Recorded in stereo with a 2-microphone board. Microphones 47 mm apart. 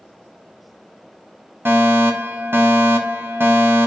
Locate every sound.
1.6 s a fire alarm: 55° right (ahead or behind), 1.7 m